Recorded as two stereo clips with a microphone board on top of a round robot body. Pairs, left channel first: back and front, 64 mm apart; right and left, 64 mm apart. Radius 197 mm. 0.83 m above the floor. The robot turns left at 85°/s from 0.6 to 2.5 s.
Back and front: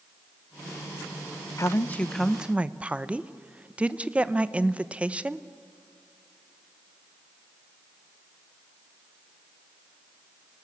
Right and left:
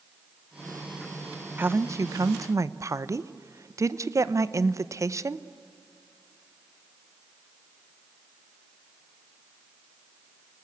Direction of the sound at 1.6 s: 145° left.